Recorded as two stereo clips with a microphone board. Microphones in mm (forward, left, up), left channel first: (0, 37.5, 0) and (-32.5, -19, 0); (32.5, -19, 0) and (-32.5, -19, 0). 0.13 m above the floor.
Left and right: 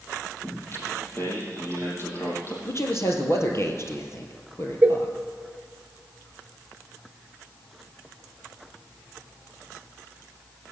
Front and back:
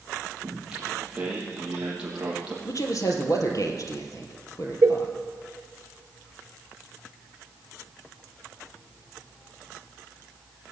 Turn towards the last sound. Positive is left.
turn(degrees=-175)